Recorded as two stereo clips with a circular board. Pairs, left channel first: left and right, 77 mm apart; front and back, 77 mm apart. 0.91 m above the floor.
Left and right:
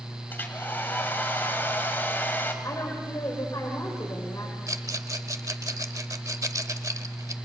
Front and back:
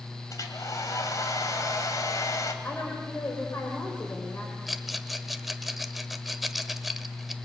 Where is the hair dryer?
30° left, 2.0 m.